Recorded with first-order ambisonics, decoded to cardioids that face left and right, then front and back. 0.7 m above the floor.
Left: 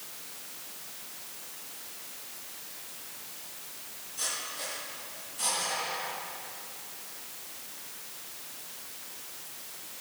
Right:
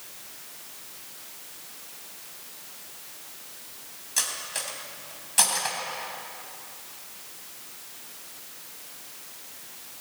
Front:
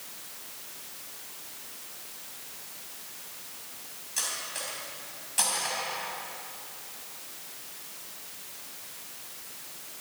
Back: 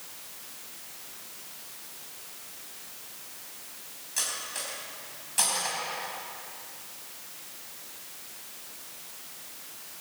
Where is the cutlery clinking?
95° right, 2.5 m.